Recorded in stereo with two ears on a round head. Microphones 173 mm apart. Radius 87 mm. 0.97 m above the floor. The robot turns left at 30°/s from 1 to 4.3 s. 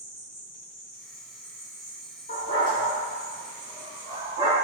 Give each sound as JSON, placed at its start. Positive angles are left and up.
{"t": 0.0, "sound": "an insect", "azimuth_deg": 45, "distance_m": 1.6}
{"t": 2.3, "sound": "a dog barking", "side_deg": 35, "distance_m": 1.4}